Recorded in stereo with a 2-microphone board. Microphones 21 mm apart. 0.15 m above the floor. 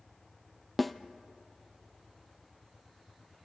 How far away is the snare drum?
About 0.9 m.